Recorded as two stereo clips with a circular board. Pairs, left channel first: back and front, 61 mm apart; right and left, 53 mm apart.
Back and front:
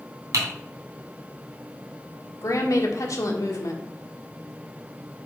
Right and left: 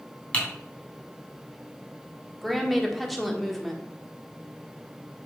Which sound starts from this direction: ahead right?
Typing on a keyboard, at 0.3 s.